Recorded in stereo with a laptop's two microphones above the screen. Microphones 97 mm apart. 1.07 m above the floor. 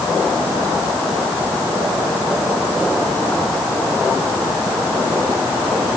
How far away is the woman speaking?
No woman speaking in this recording.